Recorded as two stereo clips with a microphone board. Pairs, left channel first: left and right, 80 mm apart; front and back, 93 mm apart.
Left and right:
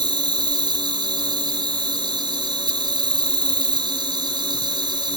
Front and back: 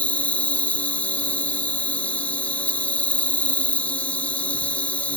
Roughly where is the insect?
Right.